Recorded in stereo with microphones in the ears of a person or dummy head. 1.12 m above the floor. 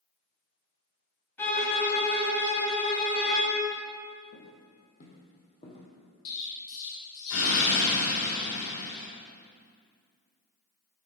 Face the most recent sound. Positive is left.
turn(degrees=75)  # may be behind; listen again after turning